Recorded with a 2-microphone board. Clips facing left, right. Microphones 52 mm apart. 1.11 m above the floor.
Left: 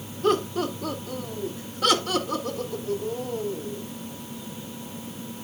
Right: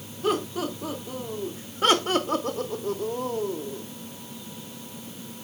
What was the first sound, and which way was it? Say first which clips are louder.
Laughter: left 3 dB; 5° right (ahead or behind).